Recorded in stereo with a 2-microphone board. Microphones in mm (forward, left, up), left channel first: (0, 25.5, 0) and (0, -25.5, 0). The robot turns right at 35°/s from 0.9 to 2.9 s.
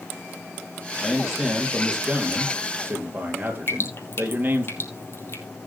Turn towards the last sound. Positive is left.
turn(degrees=50)  # may be behind; listen again after turning